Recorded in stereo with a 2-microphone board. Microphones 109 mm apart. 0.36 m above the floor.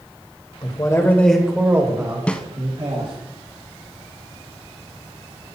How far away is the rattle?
I don't hear a rattle.